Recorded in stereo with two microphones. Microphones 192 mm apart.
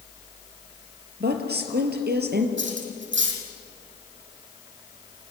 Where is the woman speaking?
60° right (ahead or behind), 3.5 m.